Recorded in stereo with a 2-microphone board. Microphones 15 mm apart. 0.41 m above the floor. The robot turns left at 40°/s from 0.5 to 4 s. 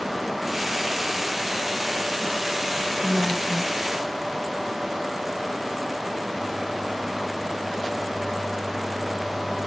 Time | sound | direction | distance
3.0 | a woman speaking | 60° right | 8 m